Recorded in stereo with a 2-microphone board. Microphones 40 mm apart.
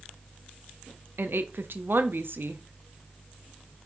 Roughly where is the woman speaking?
Right.